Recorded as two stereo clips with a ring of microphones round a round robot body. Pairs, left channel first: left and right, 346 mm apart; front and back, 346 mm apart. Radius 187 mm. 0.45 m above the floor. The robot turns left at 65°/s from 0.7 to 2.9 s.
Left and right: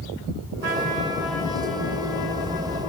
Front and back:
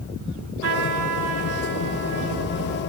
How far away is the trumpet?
About 1.7 m.